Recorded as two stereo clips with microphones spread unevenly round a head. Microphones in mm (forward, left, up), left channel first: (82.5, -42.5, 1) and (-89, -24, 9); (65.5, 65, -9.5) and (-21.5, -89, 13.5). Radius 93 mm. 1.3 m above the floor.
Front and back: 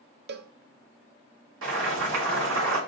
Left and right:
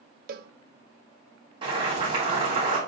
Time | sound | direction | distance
0.3 | a cowbell | 165° right | 0.6 m
1.6 | boiling | 175° left | 3 m